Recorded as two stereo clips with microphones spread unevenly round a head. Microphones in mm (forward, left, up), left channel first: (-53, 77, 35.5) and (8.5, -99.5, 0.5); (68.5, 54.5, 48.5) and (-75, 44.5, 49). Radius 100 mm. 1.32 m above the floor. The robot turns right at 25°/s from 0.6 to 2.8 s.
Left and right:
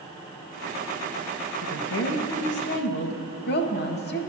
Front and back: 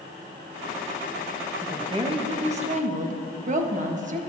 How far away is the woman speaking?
About 1.3 m.